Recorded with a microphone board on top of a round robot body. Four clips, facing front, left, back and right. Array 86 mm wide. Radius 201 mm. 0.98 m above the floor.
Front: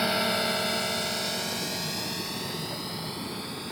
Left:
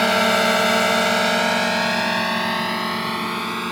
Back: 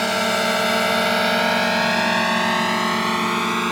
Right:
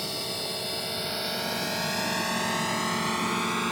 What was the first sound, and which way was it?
A drone, 105° left.